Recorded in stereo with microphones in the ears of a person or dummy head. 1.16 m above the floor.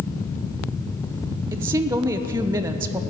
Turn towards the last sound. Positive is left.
turn(degrees=-15)  # may be behind; listen again after turning